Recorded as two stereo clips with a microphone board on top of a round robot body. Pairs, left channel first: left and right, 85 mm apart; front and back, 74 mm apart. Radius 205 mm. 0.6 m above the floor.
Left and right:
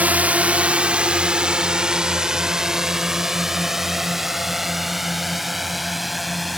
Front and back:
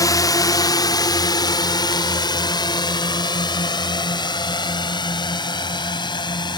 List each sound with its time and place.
0.0 s a drone: 20° right; by 6.6 s straight ahead